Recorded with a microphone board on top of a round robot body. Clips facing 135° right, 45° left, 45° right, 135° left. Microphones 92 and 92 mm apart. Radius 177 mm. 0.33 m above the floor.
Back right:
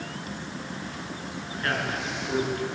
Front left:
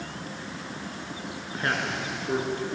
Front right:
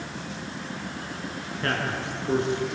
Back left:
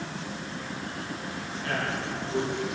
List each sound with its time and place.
1.6 s a man speaking: 20° right, 7.5 m